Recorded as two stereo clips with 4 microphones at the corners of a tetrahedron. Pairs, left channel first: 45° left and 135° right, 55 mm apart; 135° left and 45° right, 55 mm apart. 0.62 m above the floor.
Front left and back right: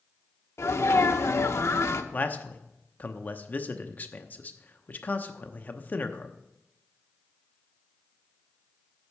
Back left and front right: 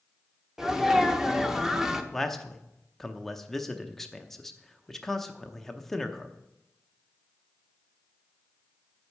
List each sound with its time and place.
0.6 s a sneeze: 35° left, 1.0 m
2.1 s a man speaking: 55° left, 0.7 m